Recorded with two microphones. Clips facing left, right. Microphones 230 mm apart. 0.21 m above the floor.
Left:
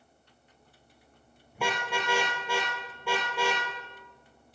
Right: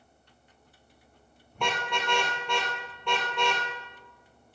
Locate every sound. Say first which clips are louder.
1.6 s a car horn: even; 5° left (ahead or behind), 3 m